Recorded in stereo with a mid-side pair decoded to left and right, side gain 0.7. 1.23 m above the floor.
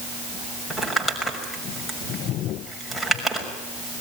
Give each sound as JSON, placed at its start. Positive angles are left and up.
{"t": 0.7, "sound": "crumpling", "azimuth_deg": 5, "distance_m": 6.0}